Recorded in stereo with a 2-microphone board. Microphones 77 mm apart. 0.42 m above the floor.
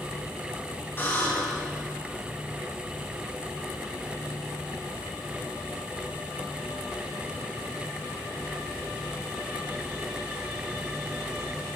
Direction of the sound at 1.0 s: 30° left (ahead or behind).